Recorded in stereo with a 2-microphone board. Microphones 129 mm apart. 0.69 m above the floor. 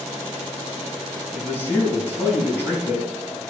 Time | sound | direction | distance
1.3 | a man speaking | 15° left (ahead or behind) | 4.5 m